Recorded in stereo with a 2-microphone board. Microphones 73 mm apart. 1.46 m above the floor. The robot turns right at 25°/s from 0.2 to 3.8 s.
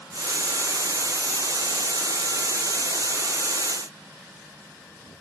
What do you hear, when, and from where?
Only background noise.